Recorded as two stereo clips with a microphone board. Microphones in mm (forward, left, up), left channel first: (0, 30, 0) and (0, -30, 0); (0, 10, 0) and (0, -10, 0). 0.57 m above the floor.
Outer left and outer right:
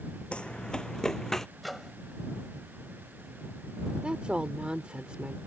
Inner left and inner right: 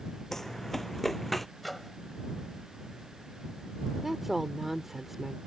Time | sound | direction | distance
0.3 | running footsteps | 15° left (ahead or behind) | ?
1.6 | a microwave | centre (ahead or behind) | ?
4.0 | a woman speaking | 15° right (ahead or behind) | ?